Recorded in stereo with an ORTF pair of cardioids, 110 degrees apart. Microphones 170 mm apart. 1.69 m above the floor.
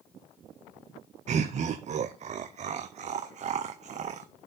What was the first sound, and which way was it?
Laughter, 45° right.